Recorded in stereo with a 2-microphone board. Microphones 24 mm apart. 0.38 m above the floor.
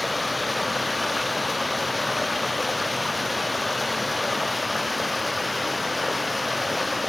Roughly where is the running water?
Centre.